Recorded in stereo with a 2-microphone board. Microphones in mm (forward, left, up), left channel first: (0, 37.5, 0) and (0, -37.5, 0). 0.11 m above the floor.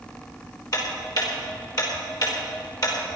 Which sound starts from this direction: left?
Ticking, at 0.7 s.